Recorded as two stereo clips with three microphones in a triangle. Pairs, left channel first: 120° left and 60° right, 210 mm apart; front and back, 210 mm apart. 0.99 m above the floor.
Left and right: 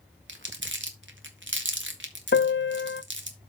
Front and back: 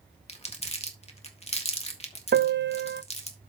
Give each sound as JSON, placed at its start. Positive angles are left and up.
{"t": 0.3, "sound": "crumpling", "azimuth_deg": -55, "distance_m": 1.7}
{"t": 2.3, "sound": "a piano", "azimuth_deg": 150, "distance_m": 0.6}